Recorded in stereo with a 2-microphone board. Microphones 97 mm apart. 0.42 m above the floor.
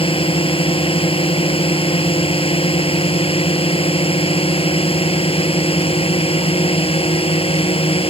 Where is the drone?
75° left (ahead or behind); by 8.1 s 80° left.